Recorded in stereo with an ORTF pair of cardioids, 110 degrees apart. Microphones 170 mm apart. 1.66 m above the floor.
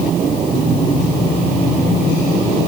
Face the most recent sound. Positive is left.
No sound to turn to.